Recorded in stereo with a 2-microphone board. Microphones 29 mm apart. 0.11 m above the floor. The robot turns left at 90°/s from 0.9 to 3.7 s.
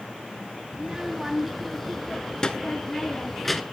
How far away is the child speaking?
About 0.9 m.